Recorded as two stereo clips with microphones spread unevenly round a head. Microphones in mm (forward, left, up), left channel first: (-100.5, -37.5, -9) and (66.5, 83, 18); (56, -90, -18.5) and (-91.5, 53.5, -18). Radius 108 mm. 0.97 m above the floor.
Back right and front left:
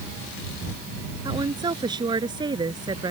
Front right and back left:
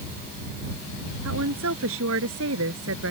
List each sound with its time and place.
1.2 s a woman speaking: 105° left